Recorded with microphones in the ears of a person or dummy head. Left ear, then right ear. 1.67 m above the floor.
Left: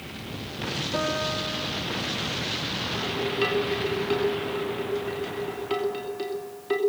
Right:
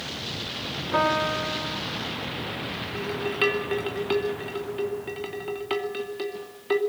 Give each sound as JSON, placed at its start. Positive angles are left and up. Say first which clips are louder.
{"t": 0.9, "sound": "a piano", "louder": "right 6 dB", "side_deg": -60, "distance_m": 4.0}
{"t": 3.0, "sound": "dishes clattering", "louder": "right 2 dB", "side_deg": -25, "distance_m": 2.5}